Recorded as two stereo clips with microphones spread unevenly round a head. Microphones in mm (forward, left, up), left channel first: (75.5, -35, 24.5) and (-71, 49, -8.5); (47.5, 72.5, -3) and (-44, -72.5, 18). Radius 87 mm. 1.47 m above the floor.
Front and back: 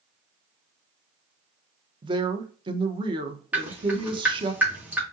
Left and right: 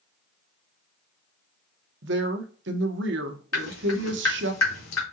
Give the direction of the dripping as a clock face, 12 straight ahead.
10 o'clock.